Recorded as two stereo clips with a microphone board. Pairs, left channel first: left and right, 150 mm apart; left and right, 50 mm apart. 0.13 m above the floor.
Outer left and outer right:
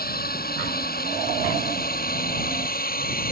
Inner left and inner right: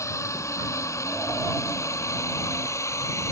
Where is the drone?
70° left (ahead or behind).